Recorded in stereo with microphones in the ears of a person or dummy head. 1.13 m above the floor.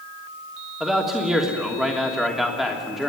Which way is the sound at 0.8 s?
Centre (ahead or behind).